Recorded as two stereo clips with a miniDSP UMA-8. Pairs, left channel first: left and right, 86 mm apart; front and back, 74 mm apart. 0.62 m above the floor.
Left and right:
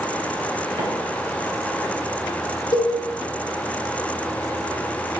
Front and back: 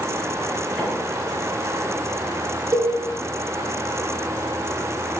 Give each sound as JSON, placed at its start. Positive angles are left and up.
{"t": 0.8, "sound": "a microwave", "azimuth_deg": -90, "distance_m": 3.5}
{"t": 2.7, "sound": "a cowbell", "azimuth_deg": 135, "distance_m": 1.4}